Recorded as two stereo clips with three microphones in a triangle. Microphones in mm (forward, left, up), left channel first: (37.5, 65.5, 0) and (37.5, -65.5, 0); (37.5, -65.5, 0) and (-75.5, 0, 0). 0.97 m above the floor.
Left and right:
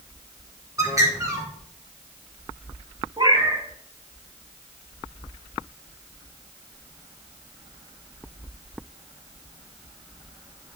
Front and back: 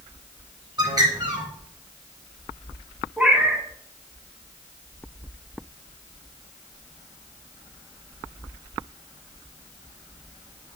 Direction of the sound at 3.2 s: 135° right.